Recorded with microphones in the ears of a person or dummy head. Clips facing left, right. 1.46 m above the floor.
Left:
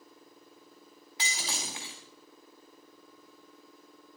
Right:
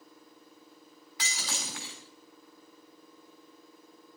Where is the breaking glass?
20° left (ahead or behind), 2 m.